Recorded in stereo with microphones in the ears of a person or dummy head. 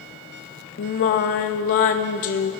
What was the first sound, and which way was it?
Singing, 40° left (ahead or behind).